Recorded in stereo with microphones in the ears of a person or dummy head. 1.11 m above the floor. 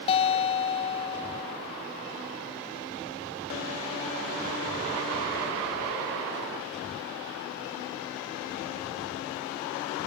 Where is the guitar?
35° left (ahead or behind).